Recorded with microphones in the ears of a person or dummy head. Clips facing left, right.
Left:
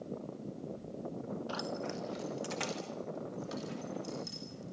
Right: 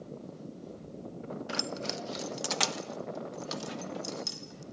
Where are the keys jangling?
30° right (ahead or behind), 0.7 m; by 4.6 s 80° right, 3.5 m.